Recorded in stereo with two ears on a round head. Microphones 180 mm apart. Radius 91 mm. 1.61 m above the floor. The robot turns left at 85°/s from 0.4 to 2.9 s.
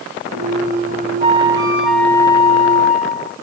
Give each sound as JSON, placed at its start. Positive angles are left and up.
{"t": 1.2, "sound": "a flute", "azimuth_deg": -120, "distance_m": 1.7}